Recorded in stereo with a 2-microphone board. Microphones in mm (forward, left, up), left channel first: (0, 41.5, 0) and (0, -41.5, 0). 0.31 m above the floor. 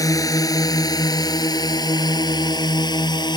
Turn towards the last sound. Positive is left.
turn(degrees=60)  # may be behind; listen again after turning